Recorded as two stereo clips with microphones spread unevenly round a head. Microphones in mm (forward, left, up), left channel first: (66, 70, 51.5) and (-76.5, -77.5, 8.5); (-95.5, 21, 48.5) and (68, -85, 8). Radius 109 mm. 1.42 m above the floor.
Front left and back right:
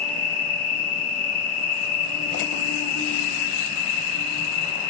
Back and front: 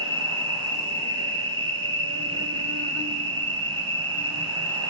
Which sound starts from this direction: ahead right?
An insect, at 0.0 s.